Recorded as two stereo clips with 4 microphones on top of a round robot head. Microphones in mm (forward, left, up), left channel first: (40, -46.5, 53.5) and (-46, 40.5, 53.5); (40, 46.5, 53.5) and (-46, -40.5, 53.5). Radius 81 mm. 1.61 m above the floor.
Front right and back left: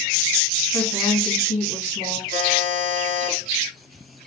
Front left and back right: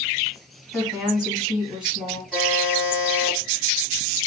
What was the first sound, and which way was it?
A woman speaking, 50° right.